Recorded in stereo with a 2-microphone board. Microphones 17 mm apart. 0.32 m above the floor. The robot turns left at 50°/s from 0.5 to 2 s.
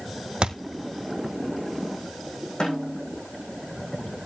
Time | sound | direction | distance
0.4 | a thud | 65° right (ahead or behind) | 1.7 m
2.6 | a snare drum | 55° left (ahead or behind) | 8 m